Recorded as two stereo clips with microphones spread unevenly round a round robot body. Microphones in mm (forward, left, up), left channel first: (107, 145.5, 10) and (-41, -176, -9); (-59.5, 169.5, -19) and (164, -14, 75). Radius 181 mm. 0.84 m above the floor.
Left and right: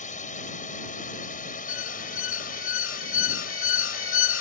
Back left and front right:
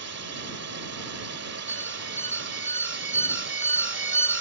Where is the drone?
5° right; by 4.4 s straight ahead.